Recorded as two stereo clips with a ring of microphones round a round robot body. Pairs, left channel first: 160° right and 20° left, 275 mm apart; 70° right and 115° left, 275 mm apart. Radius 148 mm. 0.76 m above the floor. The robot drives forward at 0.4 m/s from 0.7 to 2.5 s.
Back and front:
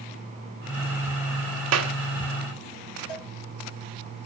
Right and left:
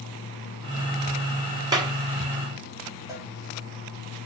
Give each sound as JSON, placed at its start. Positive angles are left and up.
{"t": 1.7, "sound": "a clap", "azimuth_deg": 35, "distance_m": 1.3}
{"t": 3.1, "sound": "a cowbell", "azimuth_deg": -170, "distance_m": 2.5}